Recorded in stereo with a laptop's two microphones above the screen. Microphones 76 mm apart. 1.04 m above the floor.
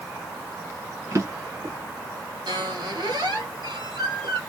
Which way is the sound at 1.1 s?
40° right (ahead or behind).